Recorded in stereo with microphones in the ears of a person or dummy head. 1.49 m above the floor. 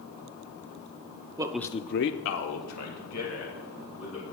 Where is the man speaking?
25° right (ahead or behind), 0.6 m; by 4.3 s 85° left, 3.5 m.